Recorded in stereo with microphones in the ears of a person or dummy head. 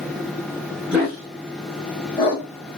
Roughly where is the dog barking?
Centre.